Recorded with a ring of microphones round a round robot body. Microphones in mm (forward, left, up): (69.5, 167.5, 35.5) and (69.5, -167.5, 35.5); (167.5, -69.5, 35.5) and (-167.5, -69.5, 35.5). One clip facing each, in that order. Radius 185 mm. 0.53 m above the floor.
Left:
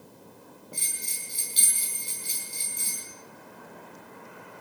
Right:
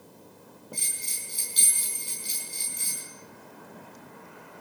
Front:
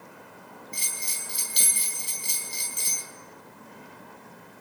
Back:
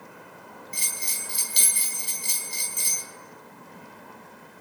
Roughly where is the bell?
Behind.